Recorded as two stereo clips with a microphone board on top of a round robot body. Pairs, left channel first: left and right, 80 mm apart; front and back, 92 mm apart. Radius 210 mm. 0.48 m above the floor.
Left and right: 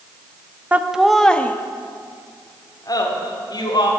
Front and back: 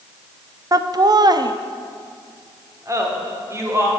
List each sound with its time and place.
0.7 s laughter: 155° right, 1.1 m; by 3.9 s 120° left, 2.5 m